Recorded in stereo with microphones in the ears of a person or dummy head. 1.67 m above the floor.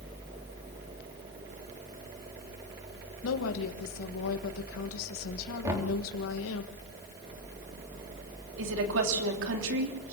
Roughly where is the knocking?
Centre.